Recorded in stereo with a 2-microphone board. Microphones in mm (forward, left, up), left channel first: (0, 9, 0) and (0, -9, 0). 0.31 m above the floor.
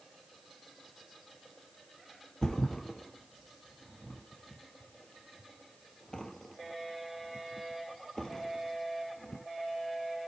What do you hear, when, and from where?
2.4 s a thud: 35° left (ahead or behind), 2.5 m